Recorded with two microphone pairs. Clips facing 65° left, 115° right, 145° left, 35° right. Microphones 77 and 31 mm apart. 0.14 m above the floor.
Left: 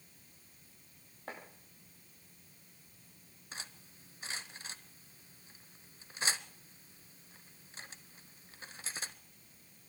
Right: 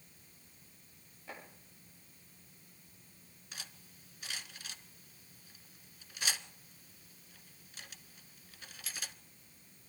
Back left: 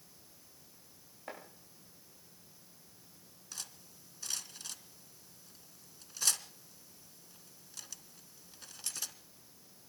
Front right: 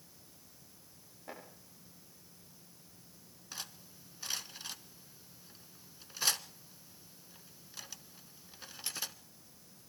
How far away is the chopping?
About 8 m.